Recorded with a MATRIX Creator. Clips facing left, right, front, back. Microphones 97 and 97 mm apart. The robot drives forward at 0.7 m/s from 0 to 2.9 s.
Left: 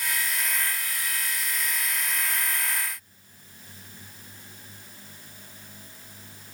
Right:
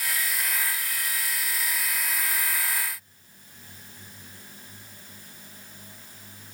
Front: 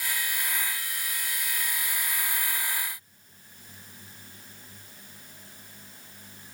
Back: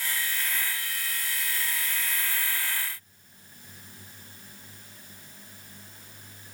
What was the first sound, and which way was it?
Only background noise.